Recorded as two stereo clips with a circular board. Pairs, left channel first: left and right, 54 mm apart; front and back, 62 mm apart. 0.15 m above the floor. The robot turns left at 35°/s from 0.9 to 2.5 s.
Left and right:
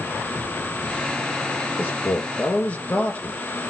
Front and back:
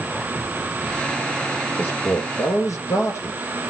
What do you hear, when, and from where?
1.8 s a man speaking: 50° left, 3 m; by 3.4 s 25° left, 3 m